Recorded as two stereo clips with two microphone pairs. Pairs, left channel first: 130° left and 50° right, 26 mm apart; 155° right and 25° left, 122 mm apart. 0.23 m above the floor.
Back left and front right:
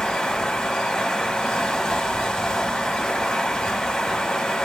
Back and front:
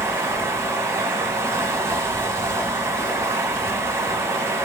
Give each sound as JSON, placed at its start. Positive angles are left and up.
{"t": 0.0, "sound": "running water", "azimuth_deg": 80, "distance_m": 0.8}